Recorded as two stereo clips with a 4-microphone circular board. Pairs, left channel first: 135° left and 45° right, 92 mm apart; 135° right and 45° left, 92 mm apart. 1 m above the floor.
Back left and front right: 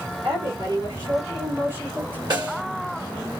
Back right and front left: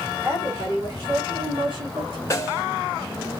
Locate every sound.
0.2 s a woman speaking: 10° right, 1.9 m; by 2.2 s 25° left, 2 m
2.3 s a snare drum: 75° right, 1.2 m